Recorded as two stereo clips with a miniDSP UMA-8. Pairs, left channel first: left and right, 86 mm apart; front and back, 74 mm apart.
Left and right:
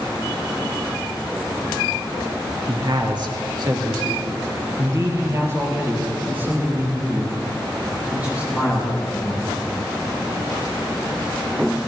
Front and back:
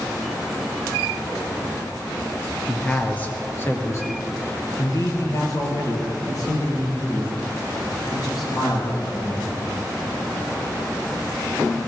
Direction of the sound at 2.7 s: 75° right.